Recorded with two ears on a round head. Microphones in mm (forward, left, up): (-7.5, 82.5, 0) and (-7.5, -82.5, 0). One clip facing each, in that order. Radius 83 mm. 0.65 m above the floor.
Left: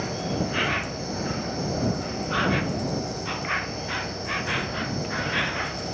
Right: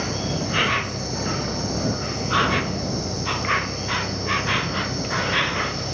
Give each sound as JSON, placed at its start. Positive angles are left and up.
{"t": 0.0, "sound": "an insect", "side_deg": -60}